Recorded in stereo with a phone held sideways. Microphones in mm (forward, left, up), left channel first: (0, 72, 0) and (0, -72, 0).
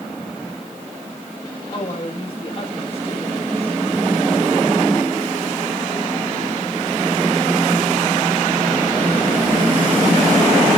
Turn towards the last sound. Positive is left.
turn(degrees=45)  # may be behind; listen again after turning